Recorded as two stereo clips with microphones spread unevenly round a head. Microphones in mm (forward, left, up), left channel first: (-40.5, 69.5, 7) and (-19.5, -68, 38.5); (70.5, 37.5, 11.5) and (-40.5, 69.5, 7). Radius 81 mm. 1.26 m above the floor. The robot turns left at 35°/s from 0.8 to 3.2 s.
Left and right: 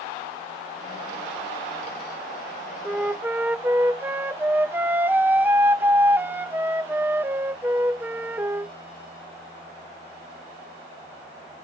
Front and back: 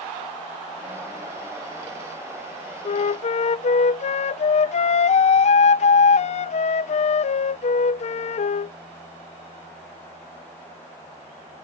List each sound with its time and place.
2.9 s a flute: 15° left; by 8.7 s straight ahead